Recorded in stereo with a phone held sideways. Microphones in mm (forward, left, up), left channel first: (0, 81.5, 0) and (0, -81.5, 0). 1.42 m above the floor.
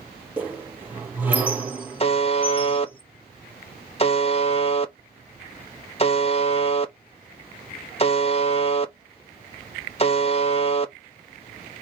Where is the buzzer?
35° left (ahead or behind), 0.8 m.